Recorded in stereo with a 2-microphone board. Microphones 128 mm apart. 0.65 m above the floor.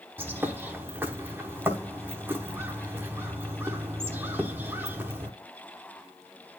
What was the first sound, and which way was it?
A bird, 15° right (ahead or behind).